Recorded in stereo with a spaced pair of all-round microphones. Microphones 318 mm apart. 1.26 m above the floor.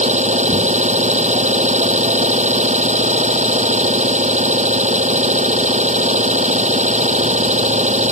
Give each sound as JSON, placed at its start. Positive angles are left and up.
{"t": 0.0, "sound": "an engine running", "side_deg": -25}